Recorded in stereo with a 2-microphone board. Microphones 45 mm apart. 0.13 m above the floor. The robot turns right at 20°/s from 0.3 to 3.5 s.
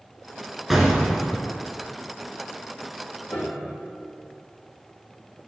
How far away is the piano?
About 2 m.